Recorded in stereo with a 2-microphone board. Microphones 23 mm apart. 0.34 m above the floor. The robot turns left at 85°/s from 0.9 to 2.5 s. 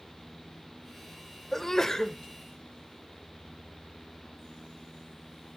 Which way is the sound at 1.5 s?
15° left (ahead or behind).